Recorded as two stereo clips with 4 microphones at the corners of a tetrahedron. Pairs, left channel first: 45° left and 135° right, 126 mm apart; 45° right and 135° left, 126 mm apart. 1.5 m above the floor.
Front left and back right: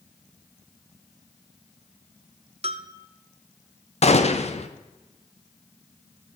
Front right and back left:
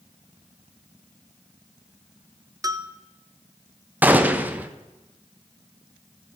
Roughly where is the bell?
Behind.